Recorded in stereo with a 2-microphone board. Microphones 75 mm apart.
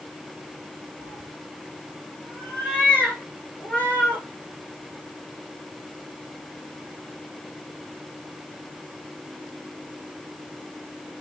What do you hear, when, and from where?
1.0 s a cat meowing: 15° left (ahead or behind), 2.5 m